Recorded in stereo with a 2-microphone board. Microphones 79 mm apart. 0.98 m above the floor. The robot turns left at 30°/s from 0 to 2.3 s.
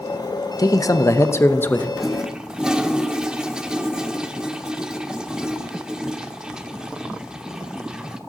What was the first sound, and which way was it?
A man speaking, 60° left.